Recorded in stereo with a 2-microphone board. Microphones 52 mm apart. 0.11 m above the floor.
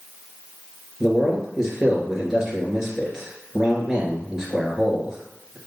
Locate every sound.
1.0 s a man speaking: 10° right (ahead or behind), 2 m